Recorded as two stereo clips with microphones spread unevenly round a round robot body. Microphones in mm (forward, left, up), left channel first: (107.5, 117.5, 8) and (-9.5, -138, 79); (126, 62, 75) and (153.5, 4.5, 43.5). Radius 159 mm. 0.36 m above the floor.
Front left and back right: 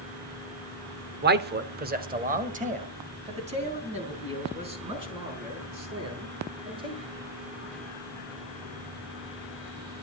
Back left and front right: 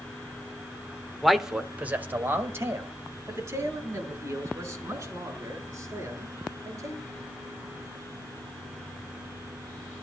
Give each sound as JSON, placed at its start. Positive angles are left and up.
{"t": 1.2, "sound": "a man speaking", "azimuth_deg": -80, "distance_m": 1.3}